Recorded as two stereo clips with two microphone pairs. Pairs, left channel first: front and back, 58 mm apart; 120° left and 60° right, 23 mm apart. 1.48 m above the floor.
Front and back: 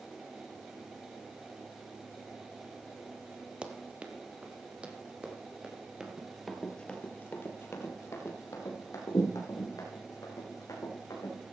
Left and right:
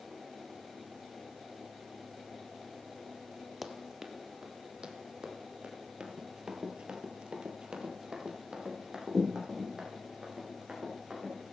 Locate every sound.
3.6 s running footsteps: 145° right, 1.5 m; by 5.7 s 105° right, 3.5 m
6.0 s running footsteps: 100° right, 2 m; by 11.4 s 5° left, 6.5 m